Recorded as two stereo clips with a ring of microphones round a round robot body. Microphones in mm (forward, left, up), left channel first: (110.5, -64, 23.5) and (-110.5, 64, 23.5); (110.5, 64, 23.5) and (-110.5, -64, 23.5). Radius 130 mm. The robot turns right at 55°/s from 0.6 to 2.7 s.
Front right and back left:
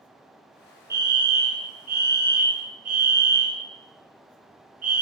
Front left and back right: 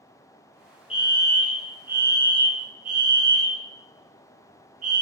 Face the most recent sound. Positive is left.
turn(degrees=180)